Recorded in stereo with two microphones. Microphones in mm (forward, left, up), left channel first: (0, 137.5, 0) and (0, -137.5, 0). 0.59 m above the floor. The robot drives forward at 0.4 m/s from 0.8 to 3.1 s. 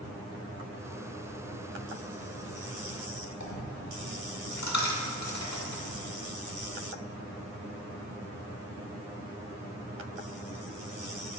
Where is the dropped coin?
80° left, 0.8 m.